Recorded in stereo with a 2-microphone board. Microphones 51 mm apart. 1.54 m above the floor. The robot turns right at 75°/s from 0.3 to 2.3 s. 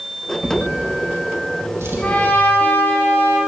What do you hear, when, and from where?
0.4 s a drawer: 10° right (ahead or behind), 3.5 m; by 2.0 s 45° right (ahead or behind), 3.5 m
2.0 s a trumpet: 25° left (ahead or behind), 3.5 m; by 3.4 s 45° left (ahead or behind), 3.5 m